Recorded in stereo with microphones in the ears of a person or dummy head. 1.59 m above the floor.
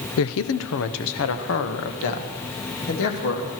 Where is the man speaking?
80° left, 0.7 m; by 3.5 s 70° left (ahead or behind), 3 m.